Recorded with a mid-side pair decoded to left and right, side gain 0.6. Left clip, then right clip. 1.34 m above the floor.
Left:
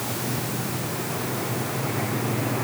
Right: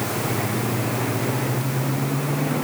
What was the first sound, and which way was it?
Only background noise.